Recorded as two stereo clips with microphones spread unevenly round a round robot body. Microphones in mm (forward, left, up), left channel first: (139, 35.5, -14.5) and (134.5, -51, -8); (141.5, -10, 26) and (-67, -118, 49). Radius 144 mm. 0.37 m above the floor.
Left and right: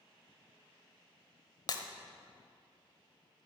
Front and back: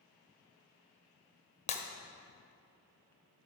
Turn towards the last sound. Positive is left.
turn(degrees=80)